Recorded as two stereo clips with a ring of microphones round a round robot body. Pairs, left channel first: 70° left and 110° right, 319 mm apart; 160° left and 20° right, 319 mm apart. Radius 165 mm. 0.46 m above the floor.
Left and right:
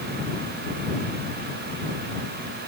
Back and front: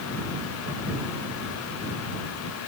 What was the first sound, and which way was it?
Only background noise.